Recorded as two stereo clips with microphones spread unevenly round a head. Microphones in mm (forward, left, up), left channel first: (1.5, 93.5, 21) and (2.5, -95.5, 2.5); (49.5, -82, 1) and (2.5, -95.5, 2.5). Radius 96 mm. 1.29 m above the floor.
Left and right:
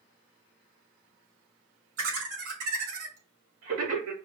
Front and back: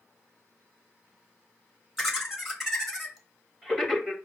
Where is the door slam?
I don't hear a door slam.